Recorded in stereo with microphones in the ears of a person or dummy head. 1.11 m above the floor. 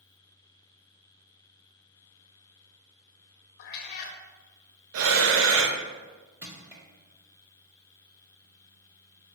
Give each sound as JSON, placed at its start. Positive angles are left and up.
{"t": 3.6, "sound": "a cat meowing", "side_deg": 60, "distance_m": 0.9}
{"t": 4.9, "sound": "breathing", "side_deg": -85, "distance_m": 0.8}
{"t": 6.4, "sound": "crushing", "side_deg": -15, "distance_m": 1.8}